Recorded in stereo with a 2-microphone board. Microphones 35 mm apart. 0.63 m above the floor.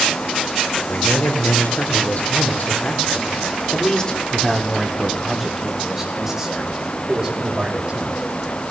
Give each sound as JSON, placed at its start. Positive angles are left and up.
{"t": 0.9, "sound": "a man speaking", "side_deg": 70, "distance_m": 3.0}